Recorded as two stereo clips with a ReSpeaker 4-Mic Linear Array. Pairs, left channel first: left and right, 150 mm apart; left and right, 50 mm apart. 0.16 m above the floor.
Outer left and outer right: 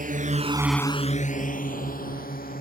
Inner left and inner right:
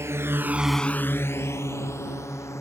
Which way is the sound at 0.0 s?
65° right (ahead or behind).